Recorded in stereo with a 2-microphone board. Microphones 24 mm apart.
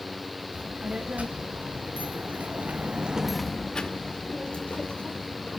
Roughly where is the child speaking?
Right.